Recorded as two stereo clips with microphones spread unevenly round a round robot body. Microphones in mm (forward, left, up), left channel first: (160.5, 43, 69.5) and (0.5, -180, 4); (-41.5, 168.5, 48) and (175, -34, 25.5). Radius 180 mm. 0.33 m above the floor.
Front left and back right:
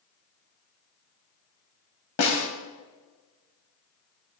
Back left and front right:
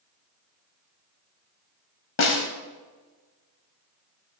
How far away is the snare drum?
About 1.7 m.